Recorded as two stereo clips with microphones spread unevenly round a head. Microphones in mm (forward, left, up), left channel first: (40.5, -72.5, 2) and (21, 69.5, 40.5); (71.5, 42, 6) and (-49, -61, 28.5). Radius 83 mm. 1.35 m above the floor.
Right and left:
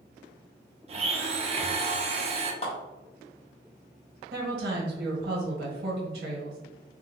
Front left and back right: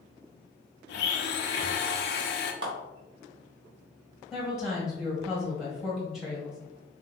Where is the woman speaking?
130° left, 1.5 m.